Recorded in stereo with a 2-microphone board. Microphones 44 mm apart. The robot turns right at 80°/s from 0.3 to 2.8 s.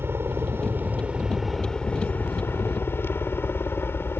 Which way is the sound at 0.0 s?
100° right.